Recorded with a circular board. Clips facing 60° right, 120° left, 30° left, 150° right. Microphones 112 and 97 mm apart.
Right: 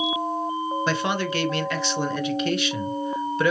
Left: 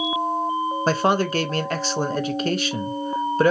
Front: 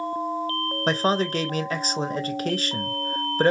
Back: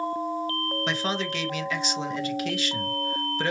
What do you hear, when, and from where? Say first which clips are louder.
0.9 s a man speaking: left 9 dB, front 9 dB; 75° left, 0.5 m